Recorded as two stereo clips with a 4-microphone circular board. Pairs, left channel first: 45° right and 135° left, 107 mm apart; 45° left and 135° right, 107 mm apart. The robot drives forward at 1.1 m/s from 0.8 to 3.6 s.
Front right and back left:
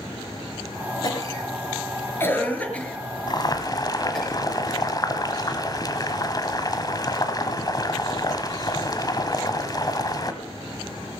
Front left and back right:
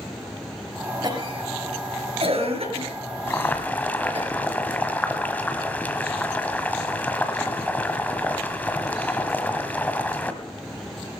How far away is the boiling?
About 1.7 m.